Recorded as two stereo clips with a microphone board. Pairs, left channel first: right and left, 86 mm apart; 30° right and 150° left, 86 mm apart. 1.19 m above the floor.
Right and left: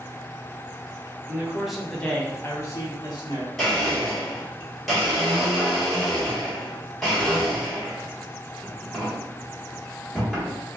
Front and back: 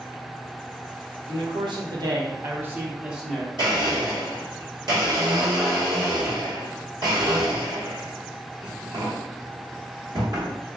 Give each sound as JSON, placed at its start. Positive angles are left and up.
{"t": 1.3, "sound": "a man speaking", "azimuth_deg": 165, "distance_m": 1.0}
{"t": 3.6, "sound": "a blender", "azimuth_deg": -175, "distance_m": 1.4}